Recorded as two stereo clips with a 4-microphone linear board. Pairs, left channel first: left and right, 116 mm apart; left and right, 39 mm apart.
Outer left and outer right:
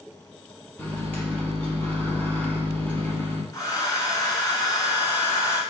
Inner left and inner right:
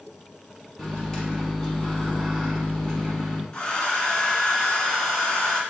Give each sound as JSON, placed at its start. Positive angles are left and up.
{"t": 0.8, "sound": "a microwave", "side_deg": 15, "distance_m": 1.1}
{"t": 3.5, "sound": "a hair dryer", "side_deg": 30, "distance_m": 1.1}